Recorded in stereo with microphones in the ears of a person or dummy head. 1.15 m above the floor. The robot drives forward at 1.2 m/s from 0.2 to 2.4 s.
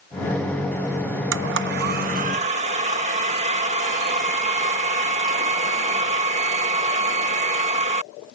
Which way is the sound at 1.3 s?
60° right (ahead or behind).